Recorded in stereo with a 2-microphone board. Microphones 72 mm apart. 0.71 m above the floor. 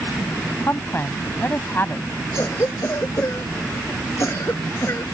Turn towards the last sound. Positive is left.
turn(degrees=45)  # may be behind; listen again after turning